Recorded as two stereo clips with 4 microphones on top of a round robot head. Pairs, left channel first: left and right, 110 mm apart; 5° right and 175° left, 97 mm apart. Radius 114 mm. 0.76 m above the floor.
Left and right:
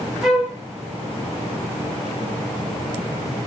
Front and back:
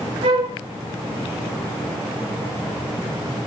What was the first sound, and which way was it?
A flute, 175° right.